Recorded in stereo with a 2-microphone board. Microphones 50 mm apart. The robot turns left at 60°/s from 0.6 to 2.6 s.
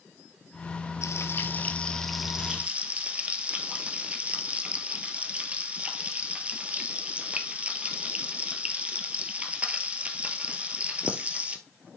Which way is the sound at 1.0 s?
70° left.